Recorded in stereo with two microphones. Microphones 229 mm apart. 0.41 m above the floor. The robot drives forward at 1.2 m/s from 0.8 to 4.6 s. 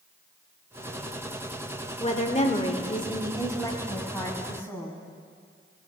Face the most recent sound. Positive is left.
turn(degrees=10)  # may be behind; listen again after turning